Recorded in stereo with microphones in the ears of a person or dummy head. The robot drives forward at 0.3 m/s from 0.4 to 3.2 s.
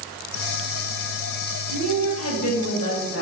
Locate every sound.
1.7 s a woman speaking: 75° left (ahead or behind), 1.5 m; by 3.2 s 80° left, 1.4 m